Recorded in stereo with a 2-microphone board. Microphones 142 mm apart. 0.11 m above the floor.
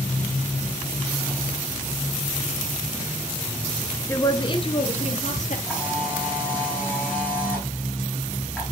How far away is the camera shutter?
About 7 m.